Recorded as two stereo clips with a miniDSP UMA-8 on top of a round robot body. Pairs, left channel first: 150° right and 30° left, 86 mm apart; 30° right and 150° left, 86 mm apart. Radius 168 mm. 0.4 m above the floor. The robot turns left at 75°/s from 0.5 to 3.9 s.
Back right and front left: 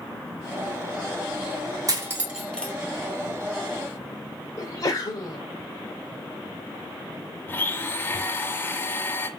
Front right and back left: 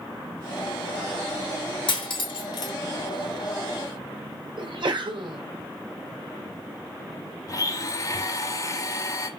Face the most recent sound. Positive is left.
turn(degrees=-80)